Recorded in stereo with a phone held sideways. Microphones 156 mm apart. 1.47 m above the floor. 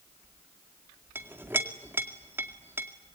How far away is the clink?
About 2 m.